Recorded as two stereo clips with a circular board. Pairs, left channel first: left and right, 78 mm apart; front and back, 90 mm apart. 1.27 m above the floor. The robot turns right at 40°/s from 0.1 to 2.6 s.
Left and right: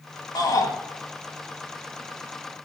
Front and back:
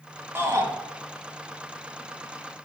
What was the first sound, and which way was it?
A shout, 120° left.